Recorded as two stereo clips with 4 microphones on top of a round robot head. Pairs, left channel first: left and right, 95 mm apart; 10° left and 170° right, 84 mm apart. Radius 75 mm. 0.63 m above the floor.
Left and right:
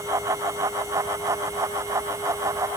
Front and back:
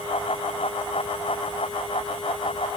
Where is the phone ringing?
No phone ringing in this recording.